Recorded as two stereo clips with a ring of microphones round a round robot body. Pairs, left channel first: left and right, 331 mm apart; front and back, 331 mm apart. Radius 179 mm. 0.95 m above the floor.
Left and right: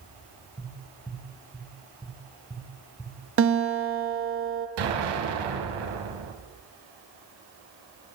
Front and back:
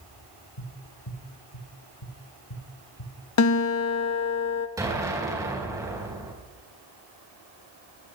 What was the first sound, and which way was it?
Tapping, 5° left.